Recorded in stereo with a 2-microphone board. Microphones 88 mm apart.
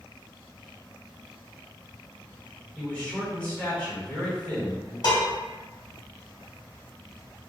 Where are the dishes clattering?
55° left (ahead or behind), 1.3 m.